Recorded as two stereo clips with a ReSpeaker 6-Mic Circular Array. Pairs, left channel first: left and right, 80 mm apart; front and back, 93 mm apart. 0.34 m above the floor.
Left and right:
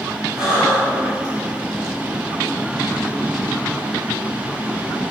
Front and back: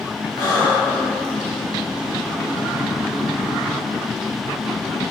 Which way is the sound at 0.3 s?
10° right.